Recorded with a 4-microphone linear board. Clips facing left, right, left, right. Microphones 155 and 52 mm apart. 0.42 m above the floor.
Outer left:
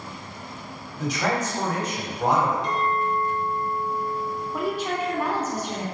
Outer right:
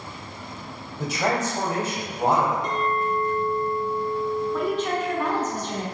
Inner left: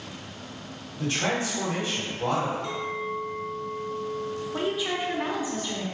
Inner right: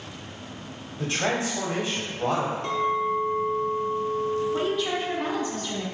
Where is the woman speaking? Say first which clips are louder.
Outer right 2 dB, inner right 2 dB; 10° left (ahead or behind), 0.7 m.